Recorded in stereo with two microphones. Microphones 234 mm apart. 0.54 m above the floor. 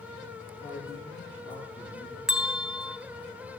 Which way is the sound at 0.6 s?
15° left (ahead or behind).